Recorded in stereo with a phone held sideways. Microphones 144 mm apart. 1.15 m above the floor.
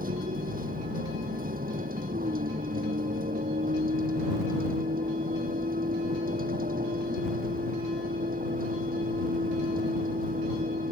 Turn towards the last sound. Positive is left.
turn(degrees=-85)